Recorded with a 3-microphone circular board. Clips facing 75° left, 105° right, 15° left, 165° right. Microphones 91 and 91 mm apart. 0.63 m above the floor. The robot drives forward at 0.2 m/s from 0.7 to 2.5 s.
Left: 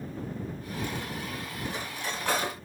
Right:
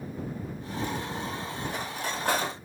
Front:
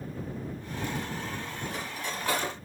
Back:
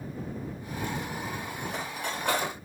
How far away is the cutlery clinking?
About 1.1 m.